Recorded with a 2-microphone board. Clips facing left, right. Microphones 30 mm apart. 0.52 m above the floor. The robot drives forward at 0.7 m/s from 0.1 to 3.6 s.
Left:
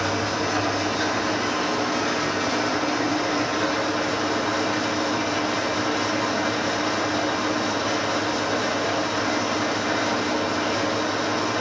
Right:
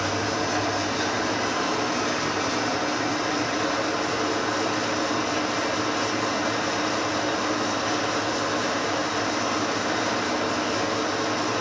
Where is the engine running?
5° left (ahead or behind), 3 m; by 11.6 s centre (ahead or behind), 5.5 m.